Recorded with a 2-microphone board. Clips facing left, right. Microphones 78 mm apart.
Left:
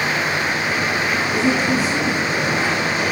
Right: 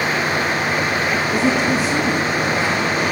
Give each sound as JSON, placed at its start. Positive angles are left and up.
{"t": 1.3, "sound": "a woman speaking", "side_deg": -5, "distance_m": 7.5}